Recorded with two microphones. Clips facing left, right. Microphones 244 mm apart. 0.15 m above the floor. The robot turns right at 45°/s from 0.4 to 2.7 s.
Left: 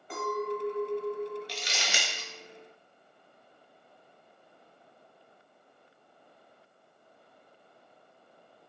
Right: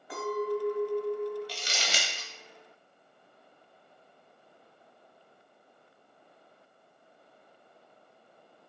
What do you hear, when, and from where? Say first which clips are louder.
0.1 s a clink: right 2 dB; 170° right, 1.4 m; by 1.4 s 125° right, 1.4 m
1.5 s crumpling: even; 25° right (ahead or behind), 0.9 m; by 2.3 s 50° right (ahead or behind), 0.9 m